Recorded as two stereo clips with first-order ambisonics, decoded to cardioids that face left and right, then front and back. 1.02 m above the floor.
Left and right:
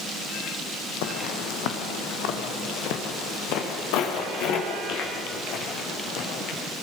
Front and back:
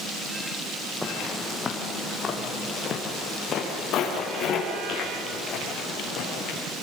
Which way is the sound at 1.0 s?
85° left.